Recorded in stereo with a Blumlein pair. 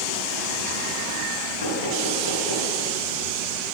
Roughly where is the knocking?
Left.